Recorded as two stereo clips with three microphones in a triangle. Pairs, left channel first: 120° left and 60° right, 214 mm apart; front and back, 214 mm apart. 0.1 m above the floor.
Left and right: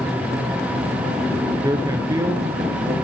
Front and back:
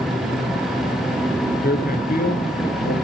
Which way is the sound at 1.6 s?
10° left.